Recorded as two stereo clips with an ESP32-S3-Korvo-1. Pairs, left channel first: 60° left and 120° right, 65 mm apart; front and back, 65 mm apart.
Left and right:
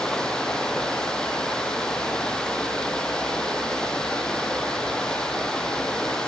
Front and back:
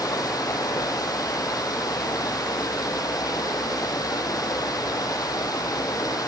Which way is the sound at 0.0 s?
20° right.